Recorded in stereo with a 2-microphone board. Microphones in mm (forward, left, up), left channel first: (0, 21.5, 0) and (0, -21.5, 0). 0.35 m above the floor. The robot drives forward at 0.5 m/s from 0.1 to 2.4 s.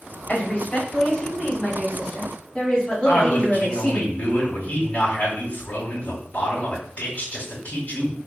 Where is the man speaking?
35° left (ahead or behind), 2.5 m.